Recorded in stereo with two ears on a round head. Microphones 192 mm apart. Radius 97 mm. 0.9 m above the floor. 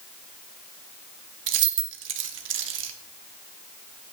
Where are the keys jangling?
65° right (ahead or behind), 1.1 m.